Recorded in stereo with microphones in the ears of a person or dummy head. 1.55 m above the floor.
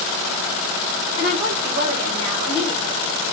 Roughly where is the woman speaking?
Right.